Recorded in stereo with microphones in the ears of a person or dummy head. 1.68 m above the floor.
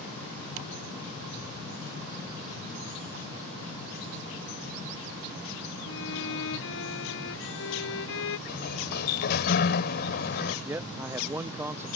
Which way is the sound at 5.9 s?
75° left (ahead or behind).